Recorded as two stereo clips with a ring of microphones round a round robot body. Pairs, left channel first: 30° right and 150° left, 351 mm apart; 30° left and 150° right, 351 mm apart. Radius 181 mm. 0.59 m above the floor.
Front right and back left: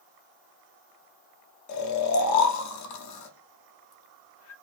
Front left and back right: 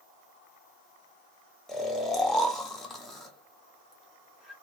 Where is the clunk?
No clunk in this recording.